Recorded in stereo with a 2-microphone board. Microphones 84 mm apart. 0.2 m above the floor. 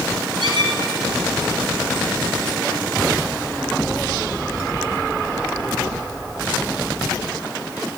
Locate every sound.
0.4 s a squeak: 65° right (ahead or behind), 1.5 m